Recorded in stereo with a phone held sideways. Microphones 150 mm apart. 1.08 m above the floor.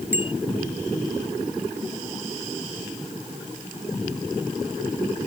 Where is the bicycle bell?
15° right (ahead or behind).